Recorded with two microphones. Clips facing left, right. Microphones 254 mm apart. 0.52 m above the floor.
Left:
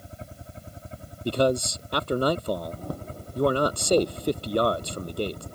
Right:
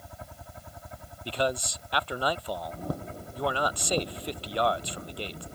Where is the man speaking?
50° left (ahead or behind).